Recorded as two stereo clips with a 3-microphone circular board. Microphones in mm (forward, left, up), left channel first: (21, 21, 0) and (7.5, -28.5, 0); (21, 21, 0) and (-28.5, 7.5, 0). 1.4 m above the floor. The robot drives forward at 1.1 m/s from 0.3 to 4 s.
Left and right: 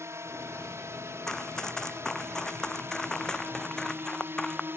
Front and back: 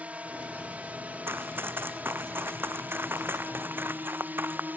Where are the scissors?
No scissors in this recording.